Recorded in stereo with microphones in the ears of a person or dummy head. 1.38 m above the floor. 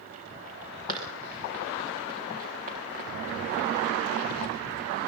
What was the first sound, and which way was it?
Running footsteps, 50° right (ahead or behind).